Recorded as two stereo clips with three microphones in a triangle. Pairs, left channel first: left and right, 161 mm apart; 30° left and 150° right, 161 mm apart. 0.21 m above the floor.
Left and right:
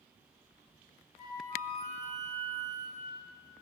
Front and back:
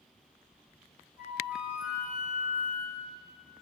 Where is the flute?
130° left, 1.4 m.